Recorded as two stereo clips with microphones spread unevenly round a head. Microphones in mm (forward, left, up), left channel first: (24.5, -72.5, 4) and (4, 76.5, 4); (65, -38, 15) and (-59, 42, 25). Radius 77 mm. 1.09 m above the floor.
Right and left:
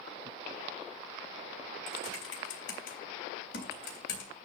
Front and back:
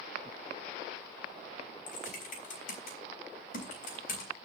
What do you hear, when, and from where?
1.9 s typing on a keyboard: 70° right, 3.5 m